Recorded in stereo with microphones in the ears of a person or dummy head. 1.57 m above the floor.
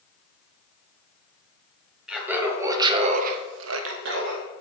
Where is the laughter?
Centre (ahead or behind), 1.3 m; by 4.4 s 60° right (ahead or behind), 1.1 m.